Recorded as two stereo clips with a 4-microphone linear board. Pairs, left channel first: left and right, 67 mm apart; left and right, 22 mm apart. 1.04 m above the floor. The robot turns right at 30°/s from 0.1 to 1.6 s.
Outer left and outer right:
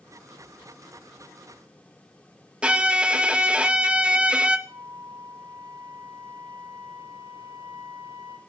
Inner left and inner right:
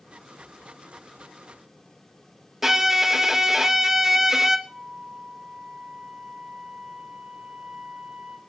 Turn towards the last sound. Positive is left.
turn(degrees=-65)  # may be behind; listen again after turning